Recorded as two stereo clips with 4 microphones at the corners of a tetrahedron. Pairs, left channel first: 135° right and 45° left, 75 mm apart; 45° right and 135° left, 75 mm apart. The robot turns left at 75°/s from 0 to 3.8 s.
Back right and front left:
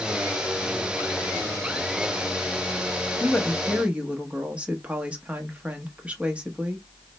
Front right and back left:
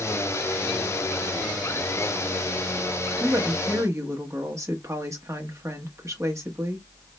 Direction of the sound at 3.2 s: 160° left.